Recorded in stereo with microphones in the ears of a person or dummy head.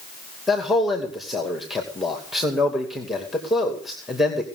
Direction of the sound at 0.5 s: 5° left (ahead or behind).